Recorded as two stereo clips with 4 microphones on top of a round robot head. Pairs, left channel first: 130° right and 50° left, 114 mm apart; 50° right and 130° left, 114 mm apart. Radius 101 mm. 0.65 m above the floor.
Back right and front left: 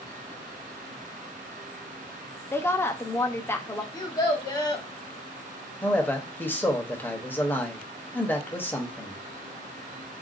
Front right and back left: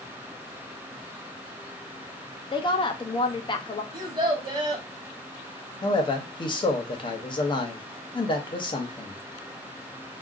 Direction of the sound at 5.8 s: 65° right.